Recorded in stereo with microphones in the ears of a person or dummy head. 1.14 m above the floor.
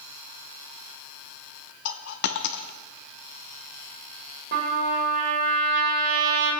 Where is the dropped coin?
55° left (ahead or behind), 0.8 m.